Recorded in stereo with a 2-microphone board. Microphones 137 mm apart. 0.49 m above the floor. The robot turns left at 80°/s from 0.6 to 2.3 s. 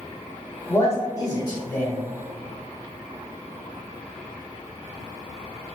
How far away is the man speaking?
About 0.8 m.